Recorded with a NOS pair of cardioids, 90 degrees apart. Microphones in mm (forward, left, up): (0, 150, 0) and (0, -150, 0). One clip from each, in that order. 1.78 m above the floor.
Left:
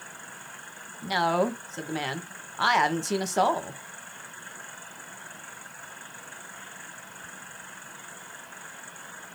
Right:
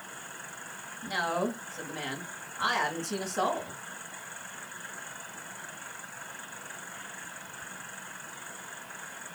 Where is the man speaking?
70° left, 1.3 m.